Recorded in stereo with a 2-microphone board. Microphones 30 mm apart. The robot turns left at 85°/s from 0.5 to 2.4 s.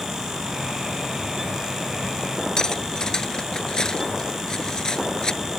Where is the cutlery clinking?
20° left (ahead or behind).